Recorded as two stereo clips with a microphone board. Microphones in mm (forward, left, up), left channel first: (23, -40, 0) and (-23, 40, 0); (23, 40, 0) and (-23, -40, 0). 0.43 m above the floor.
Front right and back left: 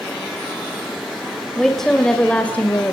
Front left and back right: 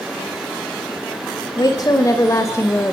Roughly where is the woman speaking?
Ahead left.